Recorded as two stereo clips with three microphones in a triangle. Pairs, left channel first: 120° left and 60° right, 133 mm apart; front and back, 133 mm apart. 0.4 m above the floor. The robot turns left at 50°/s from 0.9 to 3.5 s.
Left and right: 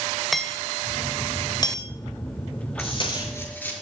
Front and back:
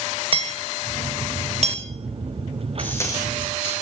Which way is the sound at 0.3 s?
150° right.